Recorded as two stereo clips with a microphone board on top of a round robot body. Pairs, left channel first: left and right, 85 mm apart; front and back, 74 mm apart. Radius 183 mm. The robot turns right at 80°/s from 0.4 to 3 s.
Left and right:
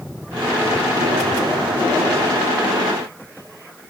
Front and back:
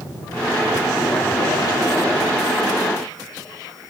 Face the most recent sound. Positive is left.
No sound to turn to.